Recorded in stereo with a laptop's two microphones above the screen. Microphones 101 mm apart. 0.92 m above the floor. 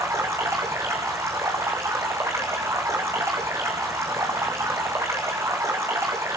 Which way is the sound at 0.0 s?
30° right (ahead or behind).